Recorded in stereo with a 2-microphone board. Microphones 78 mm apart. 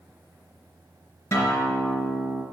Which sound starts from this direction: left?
A guitar, at 1.3 s.